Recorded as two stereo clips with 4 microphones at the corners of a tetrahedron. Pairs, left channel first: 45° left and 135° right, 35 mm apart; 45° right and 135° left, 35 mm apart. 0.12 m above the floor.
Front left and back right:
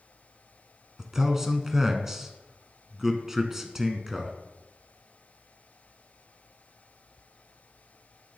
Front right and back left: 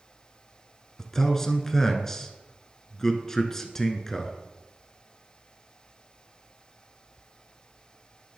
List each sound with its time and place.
1.0 s a man speaking: 90° right, 1.1 m